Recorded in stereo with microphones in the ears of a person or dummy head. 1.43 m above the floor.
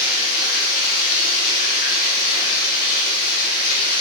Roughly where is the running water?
Left.